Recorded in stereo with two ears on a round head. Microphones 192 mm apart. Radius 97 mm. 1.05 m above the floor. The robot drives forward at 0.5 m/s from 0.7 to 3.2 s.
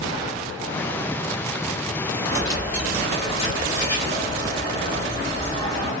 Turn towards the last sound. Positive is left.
turn(degrees=15)  # may be behind; listen again after turning